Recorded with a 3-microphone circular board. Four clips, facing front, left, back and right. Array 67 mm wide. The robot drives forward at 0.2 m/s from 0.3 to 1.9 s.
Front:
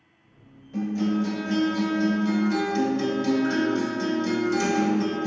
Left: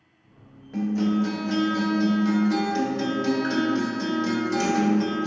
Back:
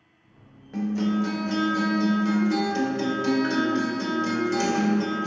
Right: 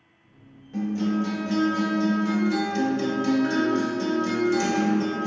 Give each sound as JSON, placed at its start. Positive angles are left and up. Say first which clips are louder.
{"t": 0.7, "sound": "a guitar", "louder": "left 2 dB, even", "azimuth_deg": 150, "distance_m": 0.9}